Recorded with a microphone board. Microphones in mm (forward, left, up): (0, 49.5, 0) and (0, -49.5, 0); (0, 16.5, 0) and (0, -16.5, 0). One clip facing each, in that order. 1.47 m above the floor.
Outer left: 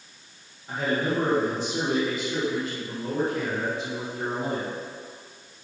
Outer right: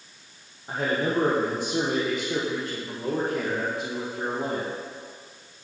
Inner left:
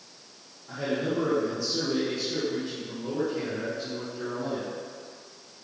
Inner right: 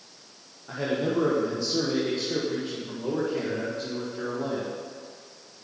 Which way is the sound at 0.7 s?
30° right (ahead or behind).